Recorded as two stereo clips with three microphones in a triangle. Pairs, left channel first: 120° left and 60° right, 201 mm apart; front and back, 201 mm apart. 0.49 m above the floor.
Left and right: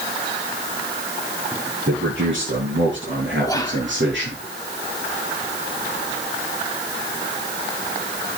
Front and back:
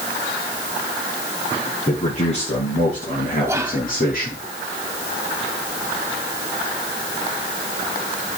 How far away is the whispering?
About 0.9 m.